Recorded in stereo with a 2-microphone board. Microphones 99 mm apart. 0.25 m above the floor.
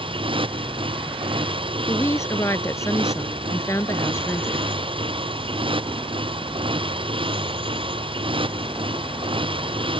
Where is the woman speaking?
30° left (ahead or behind).